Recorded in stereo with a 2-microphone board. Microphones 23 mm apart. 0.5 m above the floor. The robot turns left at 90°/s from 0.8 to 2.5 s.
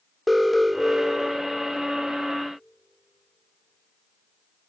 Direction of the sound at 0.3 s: 5° left.